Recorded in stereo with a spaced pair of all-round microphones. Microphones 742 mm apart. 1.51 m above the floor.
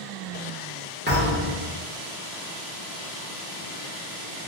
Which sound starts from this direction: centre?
A thud, at 1.1 s.